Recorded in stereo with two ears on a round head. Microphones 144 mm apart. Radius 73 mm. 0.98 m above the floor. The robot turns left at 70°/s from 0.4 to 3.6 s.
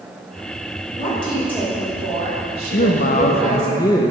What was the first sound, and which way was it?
A woman speaking, 50° left.